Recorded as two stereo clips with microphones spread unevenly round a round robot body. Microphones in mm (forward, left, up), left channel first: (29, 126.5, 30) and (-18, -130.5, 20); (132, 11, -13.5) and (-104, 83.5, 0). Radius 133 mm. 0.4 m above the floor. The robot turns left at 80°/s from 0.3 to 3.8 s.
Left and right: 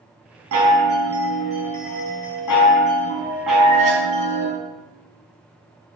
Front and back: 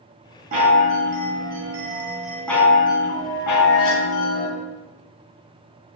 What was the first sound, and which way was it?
A chime, 135° right.